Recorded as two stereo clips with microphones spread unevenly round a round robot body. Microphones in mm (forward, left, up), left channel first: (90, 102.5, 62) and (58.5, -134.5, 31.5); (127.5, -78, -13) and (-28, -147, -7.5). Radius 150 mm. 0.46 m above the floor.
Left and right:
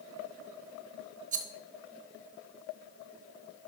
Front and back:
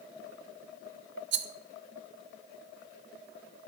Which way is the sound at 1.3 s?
155° right.